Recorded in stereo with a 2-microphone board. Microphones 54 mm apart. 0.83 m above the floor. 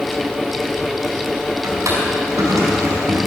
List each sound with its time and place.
1.6 s a drawer: 85° right, 4.5 m